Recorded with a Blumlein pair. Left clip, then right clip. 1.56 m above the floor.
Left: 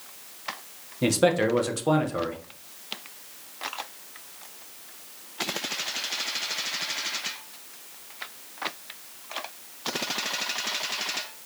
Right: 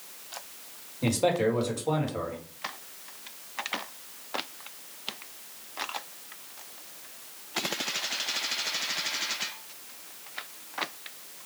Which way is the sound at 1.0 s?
45° left.